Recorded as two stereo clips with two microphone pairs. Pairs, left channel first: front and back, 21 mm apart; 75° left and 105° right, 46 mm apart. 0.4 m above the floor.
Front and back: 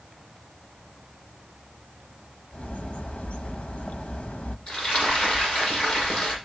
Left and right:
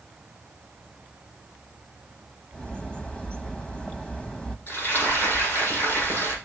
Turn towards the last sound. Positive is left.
turn(degrees=45)